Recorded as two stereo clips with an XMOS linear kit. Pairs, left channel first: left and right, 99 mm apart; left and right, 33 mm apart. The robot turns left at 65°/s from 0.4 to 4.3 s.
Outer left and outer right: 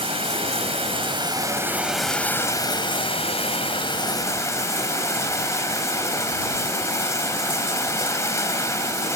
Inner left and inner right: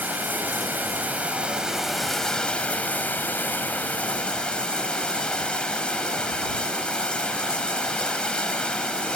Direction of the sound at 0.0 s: 75° right.